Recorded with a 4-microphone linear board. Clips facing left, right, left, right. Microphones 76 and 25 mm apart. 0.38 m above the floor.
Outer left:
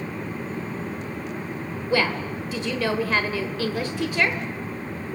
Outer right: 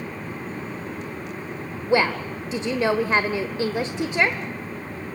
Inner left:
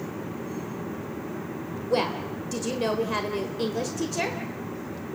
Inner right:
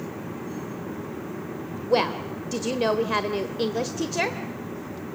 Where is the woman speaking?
20° right (ahead or behind), 1.0 m.